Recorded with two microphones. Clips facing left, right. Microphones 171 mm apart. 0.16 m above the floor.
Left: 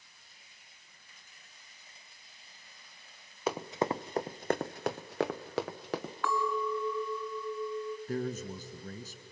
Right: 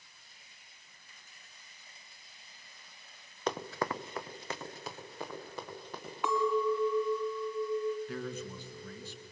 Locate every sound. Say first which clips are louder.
3.5 s running footsteps: left 3 dB; 5° left (ahead or behind), 0.8 m; by 6.1 s 85° left, 1.5 m
6.2 s a clink: right 4 dB; 20° right (ahead or behind), 1.4 m
8.1 s a man speaking: left 4 dB; 40° left (ahead or behind), 1.5 m